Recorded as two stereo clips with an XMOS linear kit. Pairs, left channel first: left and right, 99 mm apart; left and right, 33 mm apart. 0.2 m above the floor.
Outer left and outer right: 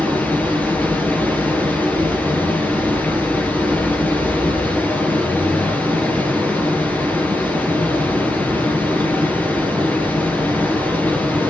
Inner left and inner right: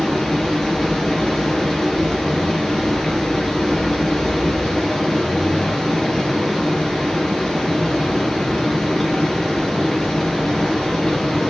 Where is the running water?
15° left (ahead or behind), 3.5 m.